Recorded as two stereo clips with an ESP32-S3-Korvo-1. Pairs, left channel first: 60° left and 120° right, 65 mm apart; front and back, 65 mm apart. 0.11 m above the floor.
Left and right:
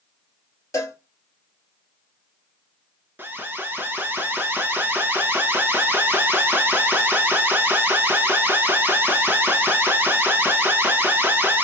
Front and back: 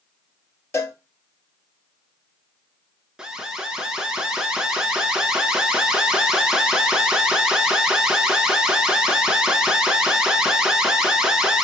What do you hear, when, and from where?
0.7 s a cowbell: 35° left, 1.0 m
3.2 s an alarm: 110° right, 1.0 m